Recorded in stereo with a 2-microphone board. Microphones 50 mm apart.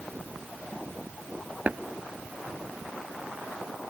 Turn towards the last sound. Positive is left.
turn(degrees=-30)  # may be behind; listen again after turning